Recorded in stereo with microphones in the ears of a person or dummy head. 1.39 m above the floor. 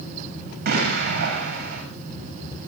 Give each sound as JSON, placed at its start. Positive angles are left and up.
{"t": 0.7, "sound": "an explosion", "side_deg": -50, "distance_m": 7.5}